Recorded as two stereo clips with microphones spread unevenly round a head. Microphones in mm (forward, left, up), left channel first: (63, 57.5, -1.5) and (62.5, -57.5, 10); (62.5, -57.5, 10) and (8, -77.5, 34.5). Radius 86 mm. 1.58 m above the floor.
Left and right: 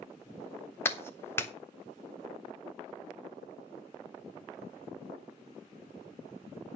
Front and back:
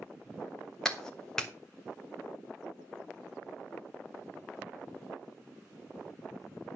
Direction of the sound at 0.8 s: 150° left.